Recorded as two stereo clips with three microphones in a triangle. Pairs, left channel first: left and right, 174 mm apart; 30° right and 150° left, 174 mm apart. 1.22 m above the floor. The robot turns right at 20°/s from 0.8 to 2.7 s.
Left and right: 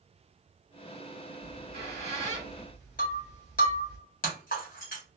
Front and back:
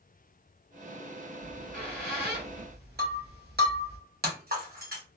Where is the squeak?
110° left, 2.5 m; by 4.0 s 135° left, 2.5 m.